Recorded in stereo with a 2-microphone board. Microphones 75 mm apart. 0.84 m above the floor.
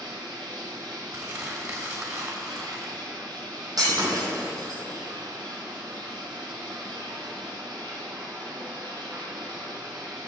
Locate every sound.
0.0 s running water: 80° right, 4 m
1.1 s crumpling: 45° right (ahead or behind), 3 m
3.8 s breaking glass: 60° right (ahead or behind), 4.5 m